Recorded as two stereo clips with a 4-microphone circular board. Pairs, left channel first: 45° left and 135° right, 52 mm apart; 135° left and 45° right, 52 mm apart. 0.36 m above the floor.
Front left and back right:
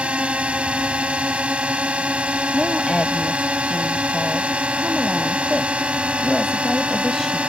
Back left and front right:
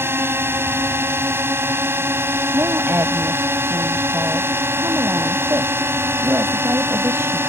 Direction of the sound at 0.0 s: 70° right.